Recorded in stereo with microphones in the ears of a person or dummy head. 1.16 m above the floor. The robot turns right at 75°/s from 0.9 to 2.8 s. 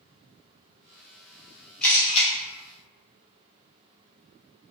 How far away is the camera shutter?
About 1.0 m.